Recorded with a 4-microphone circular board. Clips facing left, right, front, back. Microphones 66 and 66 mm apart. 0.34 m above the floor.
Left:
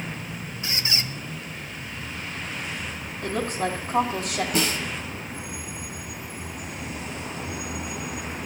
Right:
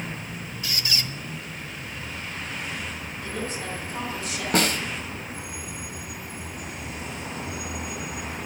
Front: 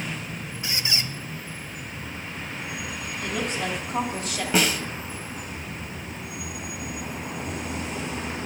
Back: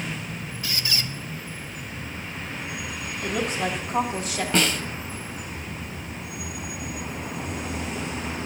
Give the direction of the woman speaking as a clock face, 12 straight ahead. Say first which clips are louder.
Left 7 dB, back 2 dB; 8 o'clock.